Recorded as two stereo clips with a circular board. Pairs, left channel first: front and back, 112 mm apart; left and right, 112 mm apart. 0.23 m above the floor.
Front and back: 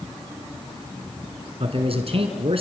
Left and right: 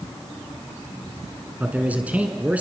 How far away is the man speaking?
About 2.5 m.